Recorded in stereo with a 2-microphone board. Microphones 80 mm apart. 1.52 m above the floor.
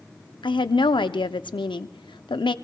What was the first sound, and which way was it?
A woman speaking, 80° left.